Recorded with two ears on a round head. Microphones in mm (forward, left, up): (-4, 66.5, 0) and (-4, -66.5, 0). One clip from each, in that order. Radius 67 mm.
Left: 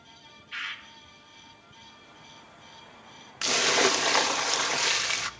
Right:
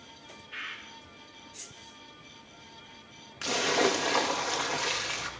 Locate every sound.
0.5 s a bird: 75° left (ahead or behind), 2 m
3.4 s a splash: 40° left (ahead or behind), 0.9 m